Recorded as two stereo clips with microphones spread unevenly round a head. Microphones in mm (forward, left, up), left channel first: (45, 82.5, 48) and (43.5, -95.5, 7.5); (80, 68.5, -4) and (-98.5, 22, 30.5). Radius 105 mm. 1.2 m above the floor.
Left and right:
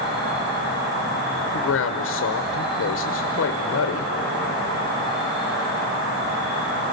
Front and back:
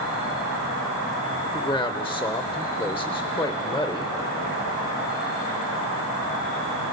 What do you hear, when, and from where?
0.0 s an insect: 60° right, 7 m
1.5 s a man speaking: 85° left, 1.0 m